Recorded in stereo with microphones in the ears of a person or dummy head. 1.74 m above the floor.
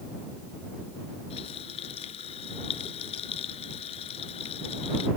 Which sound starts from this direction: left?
A running tap, at 1.3 s.